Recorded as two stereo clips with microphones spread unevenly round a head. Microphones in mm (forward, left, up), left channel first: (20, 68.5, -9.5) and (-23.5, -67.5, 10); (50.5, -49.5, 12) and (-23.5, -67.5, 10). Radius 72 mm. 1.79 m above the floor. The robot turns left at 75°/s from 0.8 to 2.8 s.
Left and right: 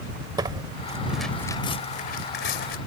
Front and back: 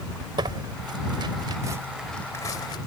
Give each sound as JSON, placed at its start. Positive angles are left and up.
{"t": 0.4, "sound": "tearing paper", "azimuth_deg": -160}